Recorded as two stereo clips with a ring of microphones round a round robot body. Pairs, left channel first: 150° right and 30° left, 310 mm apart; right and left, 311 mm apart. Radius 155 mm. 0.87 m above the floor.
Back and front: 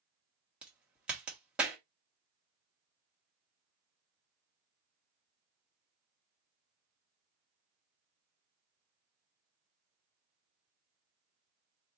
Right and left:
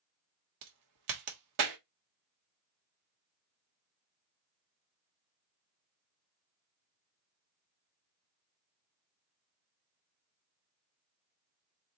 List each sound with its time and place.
0.6 s a crack: 115° left, 1.0 m